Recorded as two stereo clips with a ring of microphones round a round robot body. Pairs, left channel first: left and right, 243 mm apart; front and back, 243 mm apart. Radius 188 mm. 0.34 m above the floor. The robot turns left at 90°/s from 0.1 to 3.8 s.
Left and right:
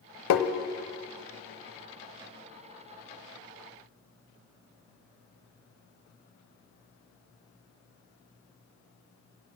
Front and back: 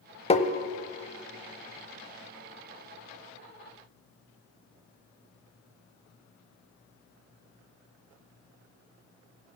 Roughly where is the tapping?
Left.